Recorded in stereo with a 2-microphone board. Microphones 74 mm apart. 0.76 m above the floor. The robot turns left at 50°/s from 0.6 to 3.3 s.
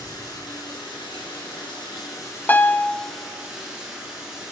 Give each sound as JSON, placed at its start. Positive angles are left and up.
{"t": 0.0, "sound": "running water", "azimuth_deg": 130, "distance_m": 7.0}
{"t": 2.5, "sound": "a piano", "side_deg": 25, "distance_m": 0.5}